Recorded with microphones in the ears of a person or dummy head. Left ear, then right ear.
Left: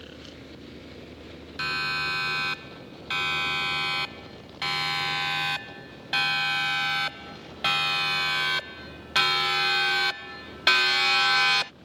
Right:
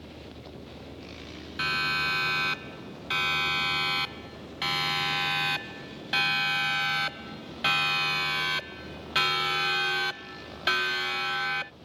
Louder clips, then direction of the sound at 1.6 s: Right 1 dB; centre (ahead or behind).